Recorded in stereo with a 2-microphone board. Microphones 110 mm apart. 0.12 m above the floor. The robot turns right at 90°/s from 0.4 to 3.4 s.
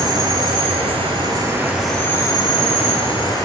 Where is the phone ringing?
I don't hear a phone ringing.